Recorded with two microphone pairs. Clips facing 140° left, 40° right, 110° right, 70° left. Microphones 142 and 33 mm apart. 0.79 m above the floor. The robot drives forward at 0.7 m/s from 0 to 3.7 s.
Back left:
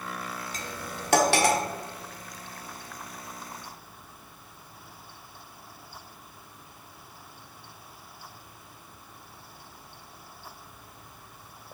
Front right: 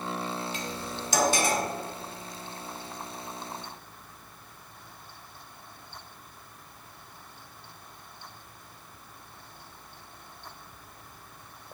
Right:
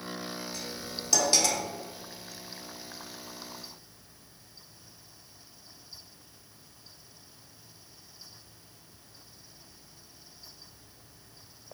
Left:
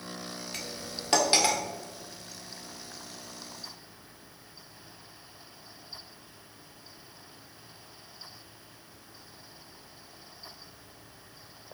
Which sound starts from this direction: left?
Cutlery clinking, at 0.5 s.